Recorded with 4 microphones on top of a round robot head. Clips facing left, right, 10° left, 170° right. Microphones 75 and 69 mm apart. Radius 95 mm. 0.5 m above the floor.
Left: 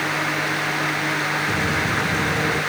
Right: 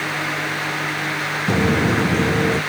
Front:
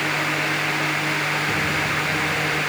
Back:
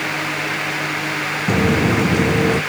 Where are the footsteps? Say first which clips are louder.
Right 4 dB, back 6 dB; 135° right; by 2.6 s 150° right.